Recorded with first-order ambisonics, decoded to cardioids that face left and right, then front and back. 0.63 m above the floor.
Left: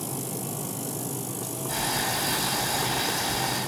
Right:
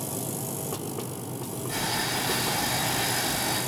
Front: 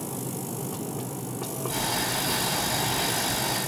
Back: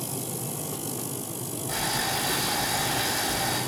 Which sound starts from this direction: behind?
Boiling, at 1.7 s.